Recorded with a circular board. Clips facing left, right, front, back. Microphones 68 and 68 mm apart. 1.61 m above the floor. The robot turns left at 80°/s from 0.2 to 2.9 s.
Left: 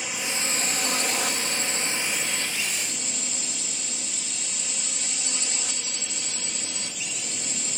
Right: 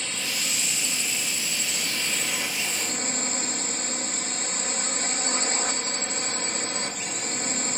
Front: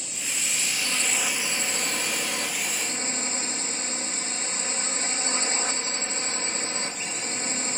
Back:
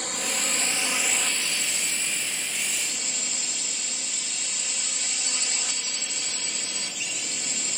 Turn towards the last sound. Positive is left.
turn(degrees=-50)